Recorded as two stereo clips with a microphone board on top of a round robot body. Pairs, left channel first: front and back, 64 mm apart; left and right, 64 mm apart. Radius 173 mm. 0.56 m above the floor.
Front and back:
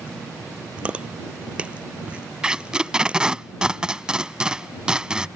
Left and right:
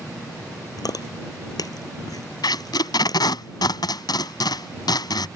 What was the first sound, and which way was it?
Chewing, 110° left.